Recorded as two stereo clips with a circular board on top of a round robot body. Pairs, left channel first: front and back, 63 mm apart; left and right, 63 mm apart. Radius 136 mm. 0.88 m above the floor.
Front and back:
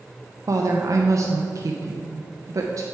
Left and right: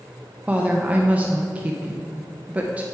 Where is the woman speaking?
155° right, 0.7 m.